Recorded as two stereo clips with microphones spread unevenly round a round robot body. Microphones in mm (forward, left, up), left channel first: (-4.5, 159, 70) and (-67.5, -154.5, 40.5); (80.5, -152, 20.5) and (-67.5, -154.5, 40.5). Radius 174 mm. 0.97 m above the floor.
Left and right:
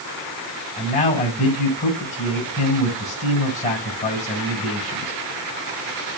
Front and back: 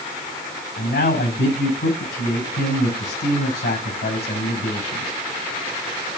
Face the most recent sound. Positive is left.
turn(degrees=10)